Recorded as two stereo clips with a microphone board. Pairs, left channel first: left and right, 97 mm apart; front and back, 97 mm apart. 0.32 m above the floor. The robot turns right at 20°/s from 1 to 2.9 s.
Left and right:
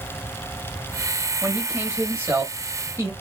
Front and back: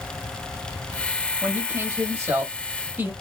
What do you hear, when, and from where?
1.4 s a man speaking: 155° right, 1.2 m; by 3.1 s 125° right, 1.2 m